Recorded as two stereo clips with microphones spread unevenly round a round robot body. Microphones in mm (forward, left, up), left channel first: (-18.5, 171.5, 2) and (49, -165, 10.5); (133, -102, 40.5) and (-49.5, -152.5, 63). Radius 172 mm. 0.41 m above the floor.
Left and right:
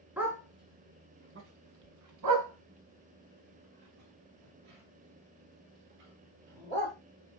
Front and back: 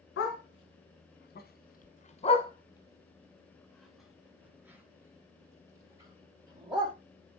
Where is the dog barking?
5° left, 1.8 m; by 6.9 s 95° right, 4 m.